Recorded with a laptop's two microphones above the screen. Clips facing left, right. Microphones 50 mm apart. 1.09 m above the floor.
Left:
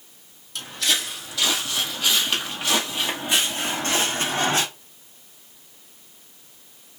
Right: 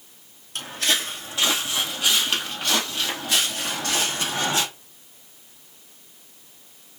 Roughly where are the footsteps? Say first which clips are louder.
Right 1 dB; right.